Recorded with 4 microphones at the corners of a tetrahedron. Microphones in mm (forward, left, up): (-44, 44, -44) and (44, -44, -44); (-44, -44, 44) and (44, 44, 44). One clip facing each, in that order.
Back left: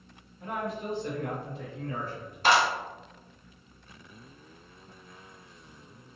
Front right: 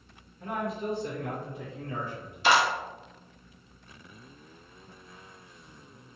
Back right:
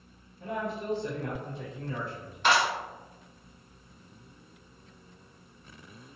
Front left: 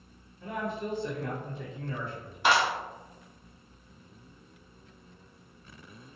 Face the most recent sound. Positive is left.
turn(degrees=120)